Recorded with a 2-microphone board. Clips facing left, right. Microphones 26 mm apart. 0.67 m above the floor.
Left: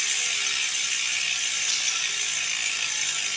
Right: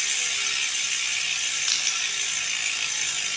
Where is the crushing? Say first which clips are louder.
Right 3 dB; 70° right (ahead or behind), 1.2 m.